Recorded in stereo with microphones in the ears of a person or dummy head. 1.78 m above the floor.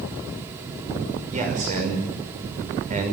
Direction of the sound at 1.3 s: 45° right (ahead or behind).